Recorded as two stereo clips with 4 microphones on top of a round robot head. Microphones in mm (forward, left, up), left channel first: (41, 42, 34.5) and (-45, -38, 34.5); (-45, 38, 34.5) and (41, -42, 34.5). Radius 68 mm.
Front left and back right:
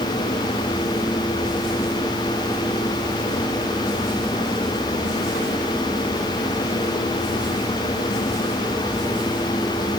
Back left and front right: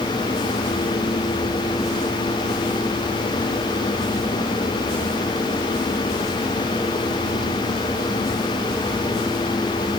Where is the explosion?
I don't hear an explosion.